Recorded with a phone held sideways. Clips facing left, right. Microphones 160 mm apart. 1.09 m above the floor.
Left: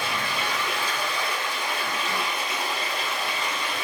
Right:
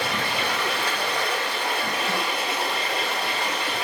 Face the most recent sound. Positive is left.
turn(degrees=-75)  # may be behind; listen again after turning